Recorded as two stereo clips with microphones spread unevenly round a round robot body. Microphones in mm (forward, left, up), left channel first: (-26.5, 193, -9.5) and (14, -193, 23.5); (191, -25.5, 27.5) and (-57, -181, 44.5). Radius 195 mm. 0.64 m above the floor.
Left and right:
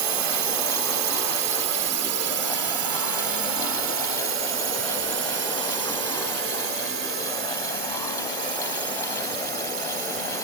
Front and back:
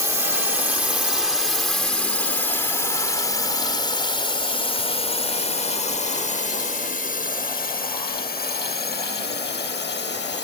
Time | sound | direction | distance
0.0 | a drone | 70° right | ?